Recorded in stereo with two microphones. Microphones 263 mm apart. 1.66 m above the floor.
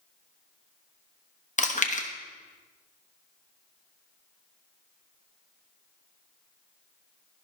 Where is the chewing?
30° left (ahead or behind), 1.1 m.